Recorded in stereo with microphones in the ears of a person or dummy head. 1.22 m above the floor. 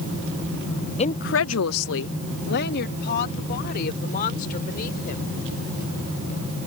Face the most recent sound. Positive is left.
turn(degrees=45)  # may be behind; listen again after turning